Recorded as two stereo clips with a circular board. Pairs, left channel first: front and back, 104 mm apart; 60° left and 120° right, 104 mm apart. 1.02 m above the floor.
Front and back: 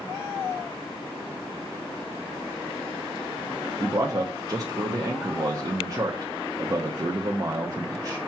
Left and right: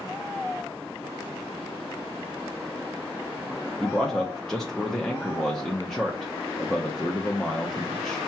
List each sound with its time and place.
3.8 s a man speaking: 145° left, 0.6 m